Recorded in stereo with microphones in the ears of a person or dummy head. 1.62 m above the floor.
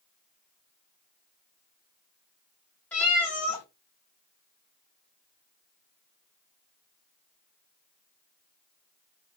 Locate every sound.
2.9 s a cat meowing: 15° left (ahead or behind), 1.2 m